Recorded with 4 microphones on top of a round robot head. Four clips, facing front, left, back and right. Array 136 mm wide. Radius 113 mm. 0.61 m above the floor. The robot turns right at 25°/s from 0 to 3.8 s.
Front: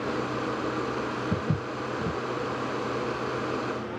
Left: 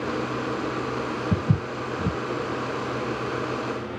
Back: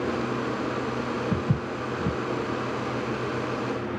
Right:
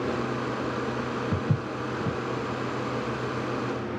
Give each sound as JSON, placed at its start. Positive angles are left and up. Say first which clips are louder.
{"t": 1.3, "sound": "footsteps", "louder": "left 3 dB, back 2 dB", "azimuth_deg": 100, "distance_m": 1.5}